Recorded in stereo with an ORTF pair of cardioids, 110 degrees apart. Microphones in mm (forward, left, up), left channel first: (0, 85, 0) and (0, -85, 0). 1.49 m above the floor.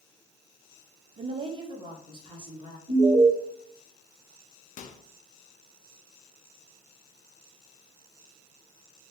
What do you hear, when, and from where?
1.2 s a woman speaking: 35° right, 0.6 m; by 2.8 s 25° right, 1.8 m
2.9 s an alarm: 40° right, 1.6 m
4.8 s a microwave: 45° left, 0.5 m